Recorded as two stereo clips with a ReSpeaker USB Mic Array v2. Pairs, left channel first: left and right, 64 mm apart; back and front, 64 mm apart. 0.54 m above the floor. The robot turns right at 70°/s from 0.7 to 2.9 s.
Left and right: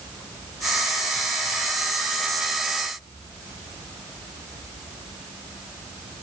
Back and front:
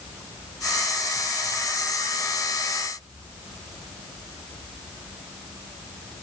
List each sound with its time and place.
Only background noise.